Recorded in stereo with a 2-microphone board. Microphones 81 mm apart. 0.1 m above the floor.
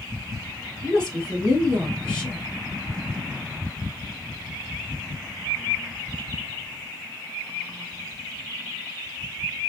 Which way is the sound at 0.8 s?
10° left (ahead or behind).